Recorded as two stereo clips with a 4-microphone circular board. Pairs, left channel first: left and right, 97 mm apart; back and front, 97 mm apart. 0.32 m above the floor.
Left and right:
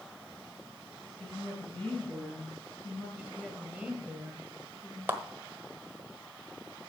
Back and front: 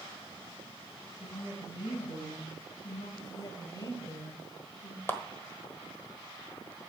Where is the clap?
135° right, 1.2 m.